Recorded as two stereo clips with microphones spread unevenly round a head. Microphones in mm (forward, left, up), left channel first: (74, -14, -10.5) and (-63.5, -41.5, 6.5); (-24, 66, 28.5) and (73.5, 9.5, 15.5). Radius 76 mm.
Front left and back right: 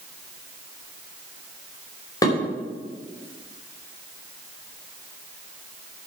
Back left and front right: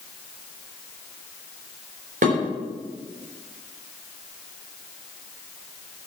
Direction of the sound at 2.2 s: 55° right.